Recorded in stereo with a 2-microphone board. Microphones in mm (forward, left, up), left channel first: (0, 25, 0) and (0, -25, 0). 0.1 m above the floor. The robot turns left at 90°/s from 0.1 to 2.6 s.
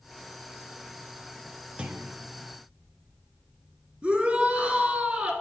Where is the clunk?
50° right, 0.6 m; by 2.2 s 85° right, 0.6 m.